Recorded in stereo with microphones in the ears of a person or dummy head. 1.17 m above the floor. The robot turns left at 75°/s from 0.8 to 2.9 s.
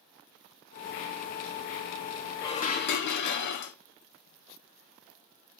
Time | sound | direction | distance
2.4 | dishes clattering | 160° left | 1.2 m